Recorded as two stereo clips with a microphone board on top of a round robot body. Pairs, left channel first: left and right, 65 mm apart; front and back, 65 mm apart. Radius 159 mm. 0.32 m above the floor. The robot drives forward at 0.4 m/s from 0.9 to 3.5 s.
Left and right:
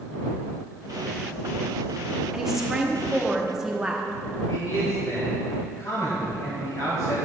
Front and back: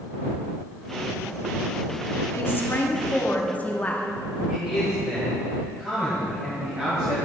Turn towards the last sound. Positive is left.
turn(degrees=105)